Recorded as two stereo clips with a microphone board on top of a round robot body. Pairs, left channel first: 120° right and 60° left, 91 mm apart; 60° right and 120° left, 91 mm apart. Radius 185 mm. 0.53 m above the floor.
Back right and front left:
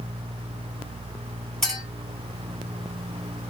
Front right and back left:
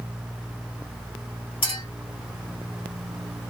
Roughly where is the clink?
Ahead right.